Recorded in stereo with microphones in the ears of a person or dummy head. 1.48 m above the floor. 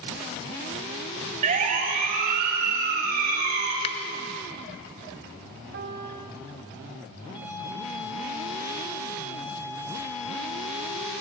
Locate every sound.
1.4 s a siren: 40° right (ahead or behind), 3 m; by 3.7 s 55° right (ahead or behind), 5.5 m
3.8 s a finger snap: 30° left (ahead or behind), 0.7 m
5.7 s a piano: 65° right (ahead or behind), 4 m
7.3 s a violin: 10° right (ahead or behind), 6 m